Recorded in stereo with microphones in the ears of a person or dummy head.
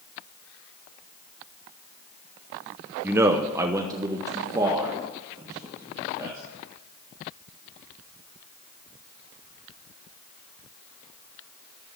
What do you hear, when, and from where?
3.0 s a man speaking: 10° right (ahead or behind), 0.6 m; by 6.4 s 20° right (ahead or behind), 3 m